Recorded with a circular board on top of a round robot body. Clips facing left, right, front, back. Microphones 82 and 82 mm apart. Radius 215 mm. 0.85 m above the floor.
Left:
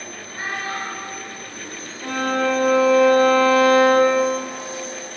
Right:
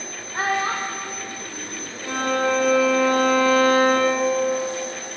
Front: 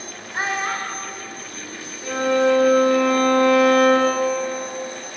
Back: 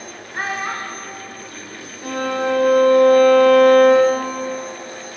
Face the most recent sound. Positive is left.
turn(degrees=145)